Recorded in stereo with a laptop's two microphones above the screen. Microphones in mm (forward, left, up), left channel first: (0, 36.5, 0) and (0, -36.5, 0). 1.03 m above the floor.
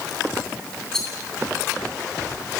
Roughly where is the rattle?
Centre.